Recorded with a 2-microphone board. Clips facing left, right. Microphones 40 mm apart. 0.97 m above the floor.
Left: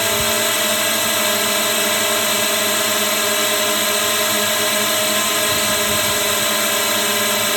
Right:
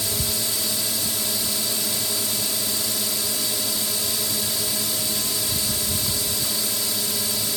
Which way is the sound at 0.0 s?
60° left (ahead or behind).